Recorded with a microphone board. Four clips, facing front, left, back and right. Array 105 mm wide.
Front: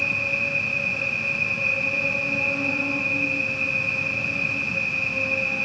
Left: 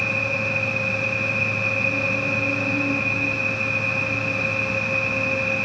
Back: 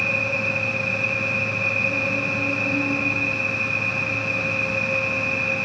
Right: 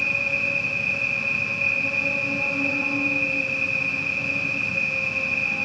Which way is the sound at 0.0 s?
30° right.